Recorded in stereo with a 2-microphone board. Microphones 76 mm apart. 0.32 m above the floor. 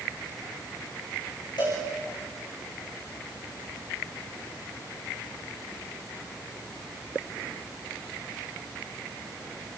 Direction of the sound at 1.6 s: 80° left.